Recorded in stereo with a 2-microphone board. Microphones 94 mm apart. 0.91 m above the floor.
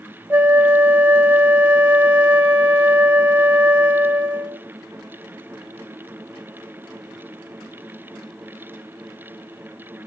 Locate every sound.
0.3 s a flute: 20° right (ahead or behind), 0.6 m